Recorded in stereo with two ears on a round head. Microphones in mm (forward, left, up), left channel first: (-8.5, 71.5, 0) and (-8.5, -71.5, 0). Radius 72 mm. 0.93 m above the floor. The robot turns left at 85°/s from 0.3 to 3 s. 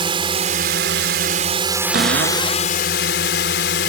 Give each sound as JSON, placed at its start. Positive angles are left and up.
{"t": 0.0, "sound": "a drone", "azimuth_deg": -35}
{"t": 1.9, "sound": "a cupboard door", "azimuth_deg": -60}